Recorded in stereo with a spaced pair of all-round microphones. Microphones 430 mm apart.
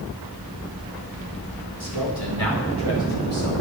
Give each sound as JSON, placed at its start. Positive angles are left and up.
{"t": 1.8, "sound": "a man speaking", "side_deg": -65, "distance_m": 4.5}